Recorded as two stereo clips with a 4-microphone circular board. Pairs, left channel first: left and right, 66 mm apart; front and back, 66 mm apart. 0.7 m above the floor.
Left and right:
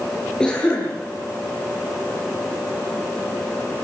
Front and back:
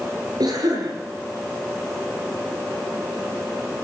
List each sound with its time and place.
0.4 s a cough: 170° left, 9.5 m